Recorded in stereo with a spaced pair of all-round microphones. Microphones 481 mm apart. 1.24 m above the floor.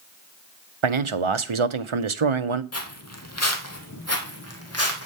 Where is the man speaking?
80° right, 0.8 m.